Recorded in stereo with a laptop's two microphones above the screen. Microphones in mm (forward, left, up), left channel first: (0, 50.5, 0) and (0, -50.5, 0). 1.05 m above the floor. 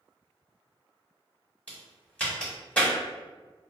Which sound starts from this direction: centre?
A crack, at 1.7 s.